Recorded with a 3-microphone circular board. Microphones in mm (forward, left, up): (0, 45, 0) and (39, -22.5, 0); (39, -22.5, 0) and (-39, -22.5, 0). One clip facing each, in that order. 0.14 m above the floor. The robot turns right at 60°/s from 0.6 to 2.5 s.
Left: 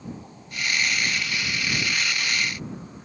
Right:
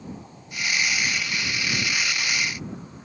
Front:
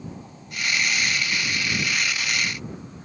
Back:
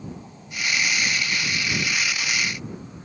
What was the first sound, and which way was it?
Only background noise.